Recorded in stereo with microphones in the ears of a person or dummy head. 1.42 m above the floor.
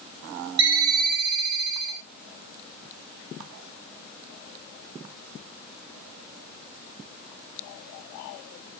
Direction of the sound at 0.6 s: 30° right (ahead or behind).